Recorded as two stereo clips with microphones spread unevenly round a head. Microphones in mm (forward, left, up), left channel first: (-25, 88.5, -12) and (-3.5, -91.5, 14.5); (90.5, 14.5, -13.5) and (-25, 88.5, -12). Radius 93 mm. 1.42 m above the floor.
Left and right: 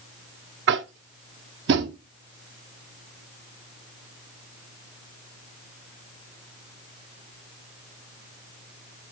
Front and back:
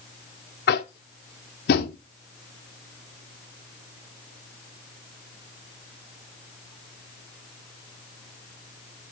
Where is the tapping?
45° right, 0.7 m.